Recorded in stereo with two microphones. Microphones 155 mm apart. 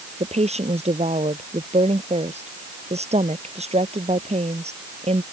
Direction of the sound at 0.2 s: 45° right (ahead or behind).